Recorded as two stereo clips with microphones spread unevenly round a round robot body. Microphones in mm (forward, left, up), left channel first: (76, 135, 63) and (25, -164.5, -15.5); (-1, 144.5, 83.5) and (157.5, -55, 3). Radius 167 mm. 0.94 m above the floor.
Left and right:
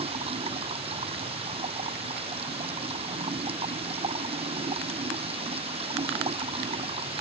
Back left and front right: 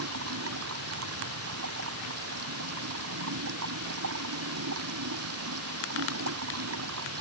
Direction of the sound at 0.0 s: 30° right.